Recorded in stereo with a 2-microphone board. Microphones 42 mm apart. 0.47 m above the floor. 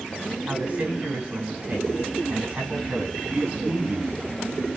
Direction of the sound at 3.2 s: 50° right (ahead or behind).